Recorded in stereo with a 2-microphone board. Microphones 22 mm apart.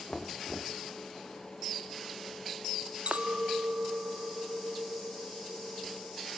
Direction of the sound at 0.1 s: 15° left (ahead or behind).